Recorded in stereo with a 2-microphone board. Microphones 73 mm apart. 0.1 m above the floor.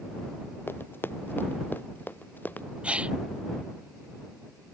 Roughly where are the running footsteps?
Left.